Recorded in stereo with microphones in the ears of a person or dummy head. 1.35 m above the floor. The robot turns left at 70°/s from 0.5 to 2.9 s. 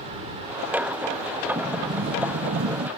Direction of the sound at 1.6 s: 35° right.